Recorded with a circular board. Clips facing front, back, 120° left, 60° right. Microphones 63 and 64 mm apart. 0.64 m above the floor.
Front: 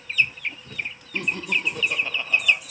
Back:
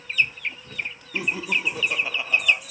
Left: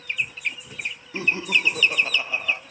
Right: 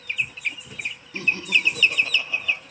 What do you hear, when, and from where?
1.1 s laughter: 110° left, 0.7 m